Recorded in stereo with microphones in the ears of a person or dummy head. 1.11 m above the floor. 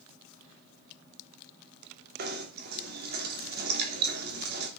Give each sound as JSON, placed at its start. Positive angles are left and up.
{"t": 2.2, "sound": "knocking", "side_deg": -50, "distance_m": 3.0}